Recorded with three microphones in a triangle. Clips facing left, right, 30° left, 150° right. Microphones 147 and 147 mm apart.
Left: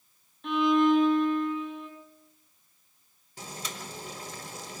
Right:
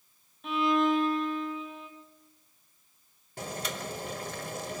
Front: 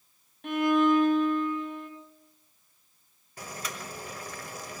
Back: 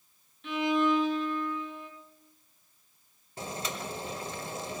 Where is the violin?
5° right, 2.5 m.